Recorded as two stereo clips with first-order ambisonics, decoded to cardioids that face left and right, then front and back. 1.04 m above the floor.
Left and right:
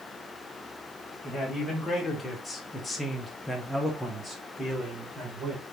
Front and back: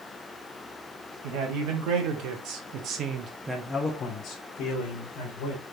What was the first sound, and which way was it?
A man speaking, 170° left.